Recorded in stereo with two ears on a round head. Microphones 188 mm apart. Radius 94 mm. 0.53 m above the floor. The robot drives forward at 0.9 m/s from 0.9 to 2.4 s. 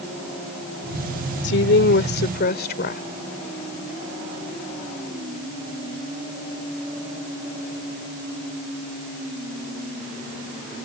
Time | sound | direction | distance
1.4 | a woman speaking | 55° left (ahead or behind) | ?